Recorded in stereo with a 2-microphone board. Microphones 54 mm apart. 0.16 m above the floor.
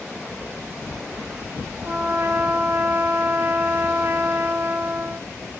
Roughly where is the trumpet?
Right.